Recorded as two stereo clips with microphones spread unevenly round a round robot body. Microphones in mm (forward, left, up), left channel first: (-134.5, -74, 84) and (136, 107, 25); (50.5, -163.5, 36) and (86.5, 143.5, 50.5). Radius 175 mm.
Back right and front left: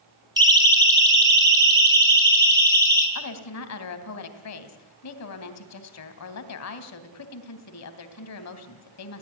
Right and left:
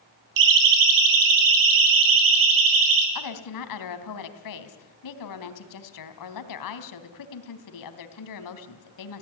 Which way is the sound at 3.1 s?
100° right.